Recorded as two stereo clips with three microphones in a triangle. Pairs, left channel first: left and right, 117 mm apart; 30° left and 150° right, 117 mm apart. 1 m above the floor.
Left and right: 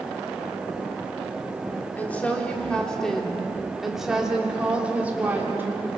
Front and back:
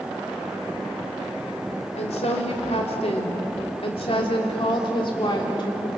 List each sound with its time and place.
1.9 s a woman speaking: 15° left, 3.5 m; by 5.9 s 20° right, 3.5 m